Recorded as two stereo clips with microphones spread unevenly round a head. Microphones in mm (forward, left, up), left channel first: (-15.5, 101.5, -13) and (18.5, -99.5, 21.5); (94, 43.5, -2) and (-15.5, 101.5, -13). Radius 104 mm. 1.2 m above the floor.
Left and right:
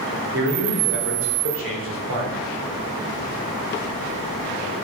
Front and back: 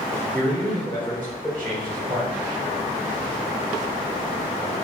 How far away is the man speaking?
About 3.5 m.